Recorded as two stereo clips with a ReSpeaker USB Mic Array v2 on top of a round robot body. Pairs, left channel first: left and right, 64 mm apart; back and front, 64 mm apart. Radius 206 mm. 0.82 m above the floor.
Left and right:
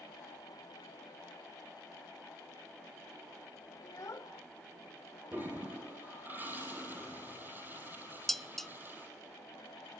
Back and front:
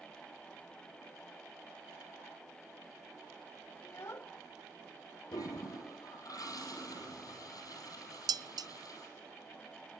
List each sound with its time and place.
3.8 s a child speaking: 130° left, 1.7 m
5.3 s a toilet flushing: 150° right, 5 m
8.3 s dishes clattering: 5° left, 0.7 m